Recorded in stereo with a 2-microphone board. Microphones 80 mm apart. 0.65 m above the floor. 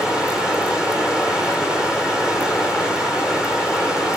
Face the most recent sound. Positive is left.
turn(degrees=-10)  # may be behind; listen again after turning